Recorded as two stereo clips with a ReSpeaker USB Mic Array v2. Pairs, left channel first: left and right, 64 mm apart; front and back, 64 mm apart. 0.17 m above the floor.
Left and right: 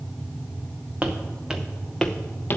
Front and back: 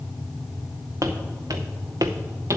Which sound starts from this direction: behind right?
Footsteps, at 1.0 s.